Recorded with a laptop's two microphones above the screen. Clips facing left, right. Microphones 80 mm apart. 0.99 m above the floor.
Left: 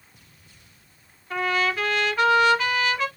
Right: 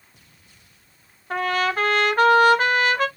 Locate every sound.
1.3 s a trumpet: 45° right (ahead or behind), 1.4 m